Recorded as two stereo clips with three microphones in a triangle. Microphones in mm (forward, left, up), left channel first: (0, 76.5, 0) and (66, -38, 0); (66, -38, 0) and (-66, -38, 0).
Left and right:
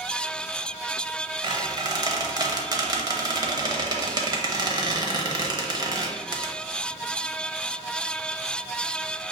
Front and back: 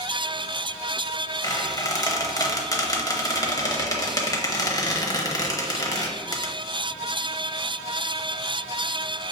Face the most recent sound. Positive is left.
turn(degrees=-35)